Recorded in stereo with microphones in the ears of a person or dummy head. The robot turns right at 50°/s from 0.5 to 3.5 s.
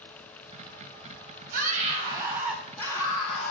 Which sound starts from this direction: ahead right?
A scream, at 1.5 s.